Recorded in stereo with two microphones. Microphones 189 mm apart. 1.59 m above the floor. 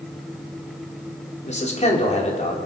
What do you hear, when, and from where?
1.4 s a man speaking: 35° left (ahead or behind), 4.5 m